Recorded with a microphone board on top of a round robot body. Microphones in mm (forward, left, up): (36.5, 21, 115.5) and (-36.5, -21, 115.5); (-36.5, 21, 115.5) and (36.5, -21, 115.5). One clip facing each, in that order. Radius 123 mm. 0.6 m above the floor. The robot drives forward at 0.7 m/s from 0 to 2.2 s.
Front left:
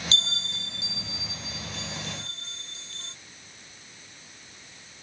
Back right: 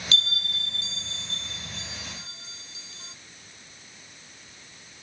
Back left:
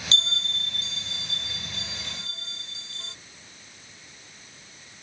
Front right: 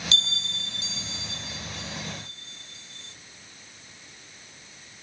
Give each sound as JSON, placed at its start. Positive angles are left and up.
{"t": 0.1, "sound": "a bell", "azimuth_deg": 95}